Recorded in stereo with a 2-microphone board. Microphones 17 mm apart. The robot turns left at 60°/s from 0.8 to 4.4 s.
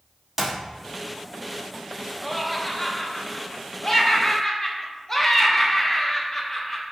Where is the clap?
10° right (ahead or behind), 0.9 m.